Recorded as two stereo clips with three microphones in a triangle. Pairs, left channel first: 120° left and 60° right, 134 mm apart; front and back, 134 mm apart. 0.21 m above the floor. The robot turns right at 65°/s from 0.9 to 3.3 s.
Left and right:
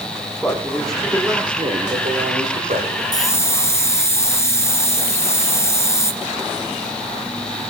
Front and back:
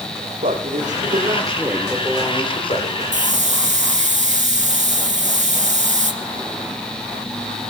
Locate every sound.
0.4 s a man speaking: 155° right, 9 m; by 3.0 s 15° right, 9 m
3.1 s a hiss: 175° left, 2.5 m; by 6.1 s 170° right, 2.5 m